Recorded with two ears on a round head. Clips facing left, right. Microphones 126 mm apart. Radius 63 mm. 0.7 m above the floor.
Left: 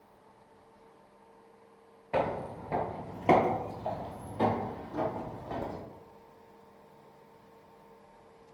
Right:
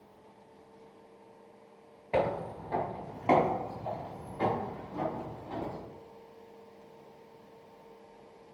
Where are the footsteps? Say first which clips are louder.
Right 1 dB; 15° right (ahead or behind), 0.7 m; by 5.8 s 70° left (ahead or behind), 2.5 m.